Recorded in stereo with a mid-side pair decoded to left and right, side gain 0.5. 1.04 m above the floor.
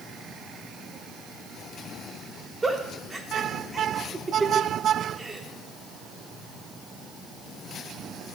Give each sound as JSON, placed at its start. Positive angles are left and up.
{"t": 2.6, "sound": "a giggle", "azimuth_deg": -20, "distance_m": 1.2}